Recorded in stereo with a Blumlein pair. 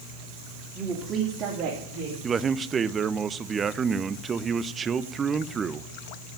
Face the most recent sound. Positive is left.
turn(degrees=-20)